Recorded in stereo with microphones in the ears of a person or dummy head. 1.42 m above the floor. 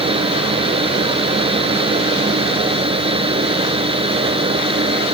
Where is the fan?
30° right (ahead or behind).